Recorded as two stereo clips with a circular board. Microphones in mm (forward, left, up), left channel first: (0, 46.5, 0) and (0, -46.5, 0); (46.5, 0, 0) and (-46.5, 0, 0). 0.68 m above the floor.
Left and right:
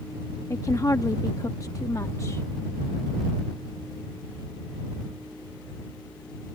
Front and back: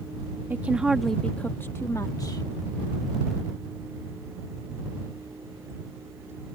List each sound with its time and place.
0.5 s a woman speaking: 125° left; by 2.5 s 35° left